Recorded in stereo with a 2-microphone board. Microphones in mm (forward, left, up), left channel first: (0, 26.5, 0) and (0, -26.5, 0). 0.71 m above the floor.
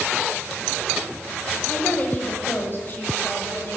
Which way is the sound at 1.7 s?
35° left (ahead or behind).